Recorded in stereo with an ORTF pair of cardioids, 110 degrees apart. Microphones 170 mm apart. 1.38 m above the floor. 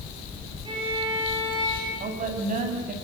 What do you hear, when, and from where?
0.7 s a violin: 30° right, 9.5 m
2.0 s a woman speaking: 50° right, 8.5 m